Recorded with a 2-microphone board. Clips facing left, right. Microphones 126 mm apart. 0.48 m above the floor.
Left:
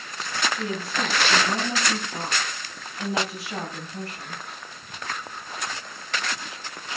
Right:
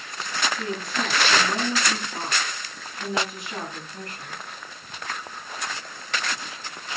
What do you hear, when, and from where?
0.5 s a woman speaking: 30° left (ahead or behind), 9.5 m